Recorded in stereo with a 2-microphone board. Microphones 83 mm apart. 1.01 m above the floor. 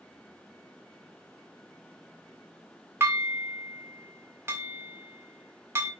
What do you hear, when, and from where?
3.0 s dishes clattering: 30° right (ahead or behind), 2.5 m